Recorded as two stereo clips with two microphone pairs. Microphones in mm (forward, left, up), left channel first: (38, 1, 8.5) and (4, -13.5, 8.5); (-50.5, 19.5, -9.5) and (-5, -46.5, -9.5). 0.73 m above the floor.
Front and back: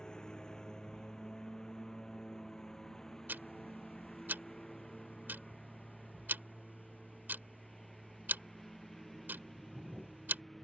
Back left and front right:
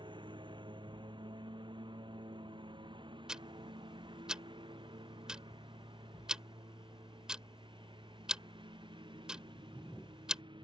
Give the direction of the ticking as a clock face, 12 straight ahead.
5 o'clock.